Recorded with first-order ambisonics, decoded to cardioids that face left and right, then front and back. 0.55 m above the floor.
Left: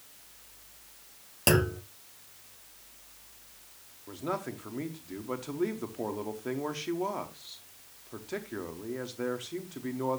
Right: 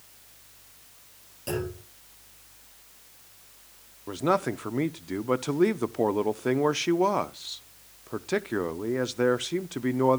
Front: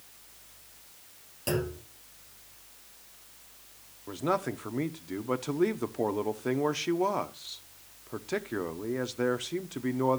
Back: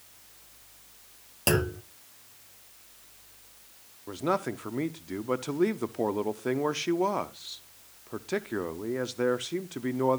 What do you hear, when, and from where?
1.5 s a clunk: 125° left, 1.3 m
4.1 s a man speaking: 100° right, 0.6 m